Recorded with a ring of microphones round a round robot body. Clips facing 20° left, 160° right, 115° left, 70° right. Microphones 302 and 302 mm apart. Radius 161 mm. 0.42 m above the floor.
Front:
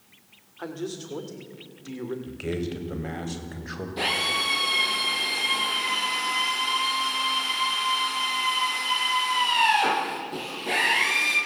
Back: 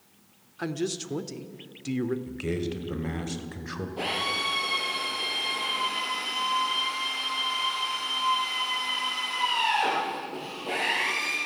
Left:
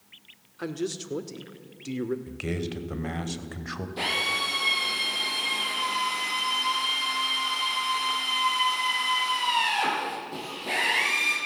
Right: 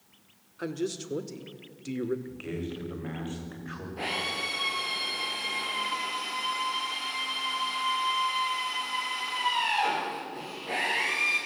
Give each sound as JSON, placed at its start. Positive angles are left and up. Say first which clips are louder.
{"t": 0.6, "sound": "a man speaking", "louder": "back 3 dB, left 1 dB", "azimuth_deg": -160, "distance_m": 1.6}
{"t": 2.3, "sound": "a man speaking", "louder": "even, left 3 dB", "azimuth_deg": 125, "distance_m": 2.5}
{"t": 4.0, "sound": "a drill", "louder": "front 1 dB, left 1 dB", "azimuth_deg": 75, "distance_m": 9.5}